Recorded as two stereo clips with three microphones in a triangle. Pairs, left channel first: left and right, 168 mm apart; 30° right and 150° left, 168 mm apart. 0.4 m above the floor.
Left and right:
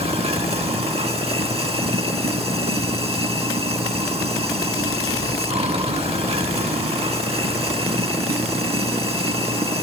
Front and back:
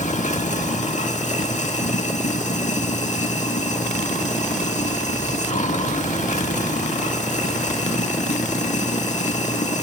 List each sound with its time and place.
0.0 s running water: 50° right, 0.9 m